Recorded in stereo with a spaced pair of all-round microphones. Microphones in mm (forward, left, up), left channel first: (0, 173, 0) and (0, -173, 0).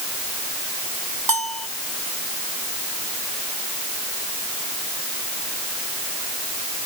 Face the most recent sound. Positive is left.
turn(degrees=-85)